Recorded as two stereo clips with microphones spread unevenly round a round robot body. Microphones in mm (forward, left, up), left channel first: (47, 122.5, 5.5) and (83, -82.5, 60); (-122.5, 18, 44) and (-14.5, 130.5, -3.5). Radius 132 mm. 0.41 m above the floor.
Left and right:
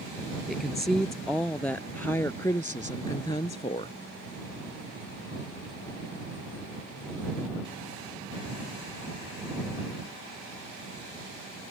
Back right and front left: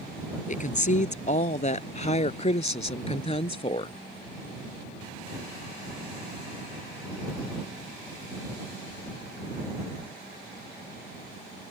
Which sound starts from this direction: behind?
A woman speaking, at 0.5 s.